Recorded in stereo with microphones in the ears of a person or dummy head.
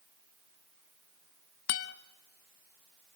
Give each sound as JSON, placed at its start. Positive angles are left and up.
{"t": 1.7, "sound": "a guitar", "side_deg": 45, "distance_m": 0.8}